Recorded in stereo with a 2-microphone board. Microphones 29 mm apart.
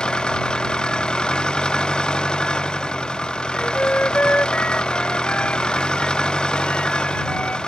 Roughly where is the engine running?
Left.